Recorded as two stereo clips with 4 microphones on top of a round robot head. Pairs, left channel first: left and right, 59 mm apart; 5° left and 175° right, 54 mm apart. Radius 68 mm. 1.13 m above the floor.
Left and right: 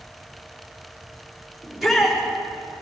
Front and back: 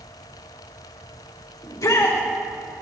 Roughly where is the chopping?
No chopping in this recording.